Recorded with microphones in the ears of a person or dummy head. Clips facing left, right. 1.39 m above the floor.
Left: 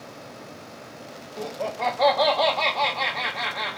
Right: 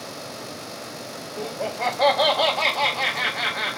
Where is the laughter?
Centre (ahead or behind), 0.6 m.